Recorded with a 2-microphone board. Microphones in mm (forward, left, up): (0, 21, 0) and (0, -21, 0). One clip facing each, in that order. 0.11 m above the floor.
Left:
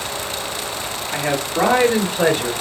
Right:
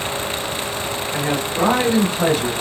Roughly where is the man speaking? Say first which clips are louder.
Left 2 dB; left.